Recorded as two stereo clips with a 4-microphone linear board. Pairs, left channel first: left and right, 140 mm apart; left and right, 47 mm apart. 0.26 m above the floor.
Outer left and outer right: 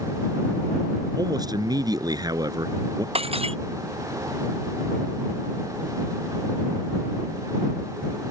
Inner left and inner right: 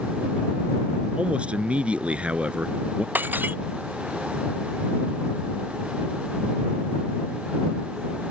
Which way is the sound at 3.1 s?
45° right (ahead or behind).